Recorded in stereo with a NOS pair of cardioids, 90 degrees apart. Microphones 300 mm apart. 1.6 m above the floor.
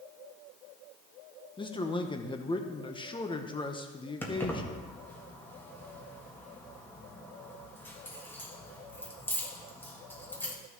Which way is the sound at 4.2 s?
5° left.